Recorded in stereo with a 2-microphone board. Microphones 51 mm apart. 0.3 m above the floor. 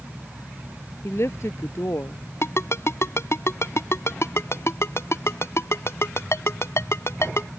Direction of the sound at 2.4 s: 65° left (ahead or behind).